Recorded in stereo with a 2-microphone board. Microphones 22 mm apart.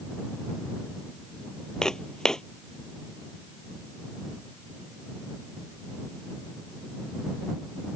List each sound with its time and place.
1.8 s footsteps: 30° left (ahead or behind)